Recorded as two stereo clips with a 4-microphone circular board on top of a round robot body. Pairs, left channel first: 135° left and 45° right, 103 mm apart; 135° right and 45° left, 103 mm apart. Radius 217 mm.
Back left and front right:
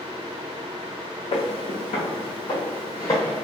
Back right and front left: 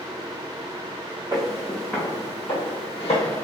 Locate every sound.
1.3 s footsteps: 105° left, 0.6 m; by 3.5 s 160° right, 1.3 m